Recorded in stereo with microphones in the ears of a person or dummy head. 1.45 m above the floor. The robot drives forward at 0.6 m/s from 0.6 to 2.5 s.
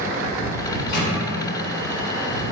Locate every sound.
0.7 s a microwave: 60° left (ahead or behind), 1.1 m; by 1.1 s 70° left (ahead or behind), 1.1 m